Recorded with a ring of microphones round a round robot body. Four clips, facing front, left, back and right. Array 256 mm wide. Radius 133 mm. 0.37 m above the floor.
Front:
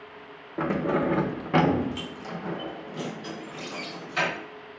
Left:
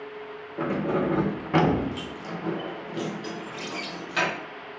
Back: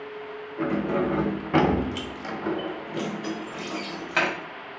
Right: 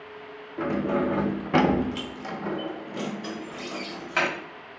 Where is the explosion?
No explosion in this recording.